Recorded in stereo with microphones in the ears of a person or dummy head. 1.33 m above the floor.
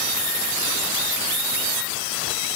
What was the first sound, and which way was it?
Only background noise.